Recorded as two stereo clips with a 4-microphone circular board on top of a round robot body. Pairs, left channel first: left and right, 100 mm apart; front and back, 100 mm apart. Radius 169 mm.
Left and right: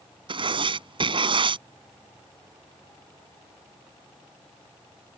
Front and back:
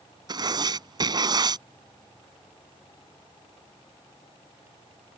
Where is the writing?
130° right.